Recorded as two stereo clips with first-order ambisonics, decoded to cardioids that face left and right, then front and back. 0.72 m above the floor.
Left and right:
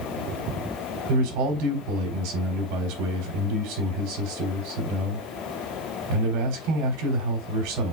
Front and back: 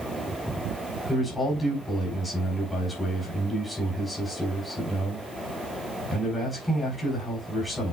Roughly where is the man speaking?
Right.